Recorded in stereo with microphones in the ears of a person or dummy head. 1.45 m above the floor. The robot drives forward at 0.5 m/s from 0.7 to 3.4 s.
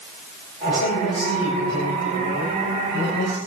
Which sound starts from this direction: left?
A man speaking, at 0.7 s.